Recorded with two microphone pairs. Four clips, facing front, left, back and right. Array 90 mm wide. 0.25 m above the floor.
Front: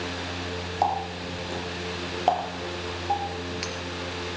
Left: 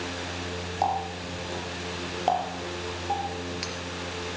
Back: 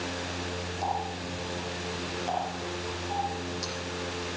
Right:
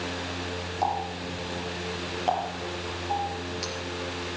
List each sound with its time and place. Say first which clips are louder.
0.8 s a running tap: left 1 dB, front 6 dB; 20° left, 3.5 m